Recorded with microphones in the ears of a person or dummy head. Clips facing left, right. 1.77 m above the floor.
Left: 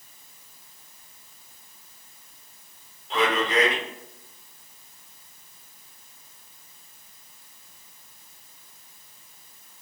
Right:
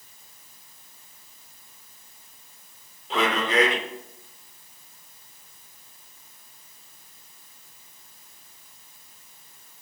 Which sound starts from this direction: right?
A man speaking, at 3.1 s.